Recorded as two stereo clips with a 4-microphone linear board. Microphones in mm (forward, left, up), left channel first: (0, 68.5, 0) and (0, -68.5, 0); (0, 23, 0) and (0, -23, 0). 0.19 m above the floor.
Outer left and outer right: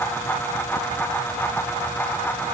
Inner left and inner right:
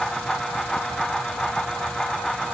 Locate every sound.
Only background noise.